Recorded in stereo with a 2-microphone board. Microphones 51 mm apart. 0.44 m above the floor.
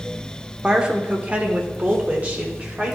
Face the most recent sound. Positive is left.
turn(degrees=-30)  # may be behind; listen again after turning